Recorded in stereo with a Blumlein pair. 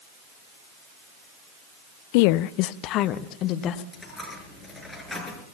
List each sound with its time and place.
2.1 s a woman speaking: 50° left, 0.5 m; by 3.8 s 35° left, 1.7 m
3.9 s a dropped coin: 5° left, 5 m